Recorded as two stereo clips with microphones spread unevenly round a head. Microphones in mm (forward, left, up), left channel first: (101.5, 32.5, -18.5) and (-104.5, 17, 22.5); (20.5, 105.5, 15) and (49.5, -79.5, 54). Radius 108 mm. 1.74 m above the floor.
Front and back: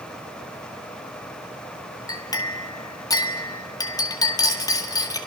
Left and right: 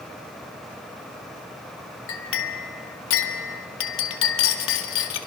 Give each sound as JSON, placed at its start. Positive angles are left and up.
{"t": 2.1, "sound": "a clink", "azimuth_deg": 80, "distance_m": 1.9}